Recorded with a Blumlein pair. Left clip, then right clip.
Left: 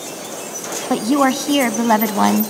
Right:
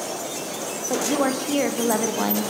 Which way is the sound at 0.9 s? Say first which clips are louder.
Left 6 dB; 65° left.